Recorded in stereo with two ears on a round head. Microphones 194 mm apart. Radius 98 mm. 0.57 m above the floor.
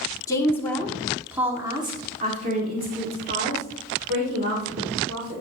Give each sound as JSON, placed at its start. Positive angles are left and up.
{"t": 0.3, "sound": "a woman speaking", "side_deg": 15, "distance_m": 1.5}